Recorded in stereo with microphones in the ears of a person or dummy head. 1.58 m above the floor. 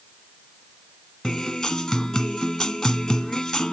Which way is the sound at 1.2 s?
5° left (ahead or behind).